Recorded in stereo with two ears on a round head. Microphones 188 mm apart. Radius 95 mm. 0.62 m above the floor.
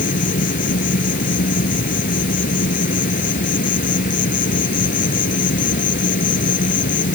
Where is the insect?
40° left (ahead or behind).